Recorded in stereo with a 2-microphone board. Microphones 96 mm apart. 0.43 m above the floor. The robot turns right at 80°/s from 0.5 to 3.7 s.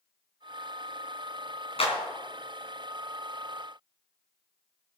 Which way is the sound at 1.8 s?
75° left (ahead or behind).